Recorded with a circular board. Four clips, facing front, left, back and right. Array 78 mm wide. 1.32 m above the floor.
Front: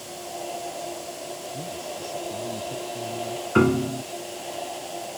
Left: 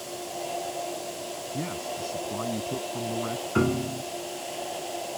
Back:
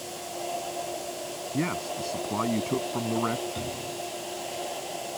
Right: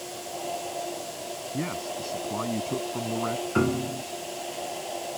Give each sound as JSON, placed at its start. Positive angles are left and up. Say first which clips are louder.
{"t": 1.5, "sound": "a man speaking", "louder": "right 2 dB, back 4 dB", "azimuth_deg": -165}
{"t": 3.5, "sound": "a piano", "louder": "left 1 dB, front 14 dB", "azimuth_deg": -5}